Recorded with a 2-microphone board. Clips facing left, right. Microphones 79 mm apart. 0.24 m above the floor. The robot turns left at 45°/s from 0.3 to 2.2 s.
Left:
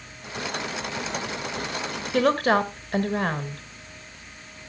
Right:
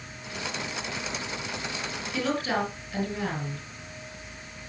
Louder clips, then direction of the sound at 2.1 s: Left 8 dB; 60° left (ahead or behind).